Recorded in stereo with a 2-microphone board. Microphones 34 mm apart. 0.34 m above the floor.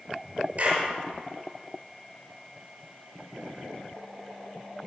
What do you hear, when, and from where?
0.6 s a clap: 40° right (ahead or behind), 6 m